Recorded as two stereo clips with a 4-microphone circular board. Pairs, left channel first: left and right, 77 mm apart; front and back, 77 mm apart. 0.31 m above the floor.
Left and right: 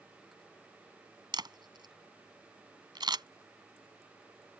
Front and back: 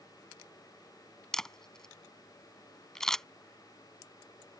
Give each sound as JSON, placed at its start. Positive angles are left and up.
{"t": 1.3, "sound": "a camera shutter", "azimuth_deg": -85}